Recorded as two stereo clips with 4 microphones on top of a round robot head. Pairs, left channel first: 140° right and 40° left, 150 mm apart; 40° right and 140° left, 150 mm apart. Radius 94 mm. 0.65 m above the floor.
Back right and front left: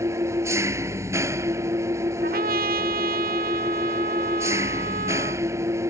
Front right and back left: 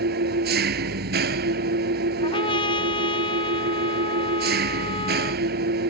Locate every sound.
0.0 s an engine running: 115° left
2.2 s a trumpet: 20° left